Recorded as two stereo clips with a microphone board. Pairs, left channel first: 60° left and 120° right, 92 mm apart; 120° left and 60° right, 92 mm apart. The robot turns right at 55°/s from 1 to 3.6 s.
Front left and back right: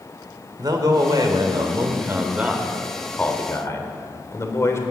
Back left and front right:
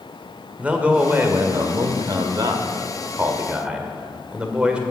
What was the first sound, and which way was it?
A man speaking, 130° right.